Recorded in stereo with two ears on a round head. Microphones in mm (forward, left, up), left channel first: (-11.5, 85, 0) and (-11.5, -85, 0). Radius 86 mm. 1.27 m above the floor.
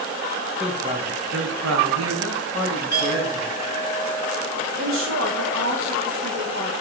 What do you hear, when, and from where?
0.6 s a man speaking: 15° right (ahead or behind), 1.4 m; by 3.5 s 65° right (ahead or behind), 3 m
2.9 s a clink: 45° right (ahead or behind), 4 m
4.8 s a woman speaking: 75° right (ahead or behind), 1.6 m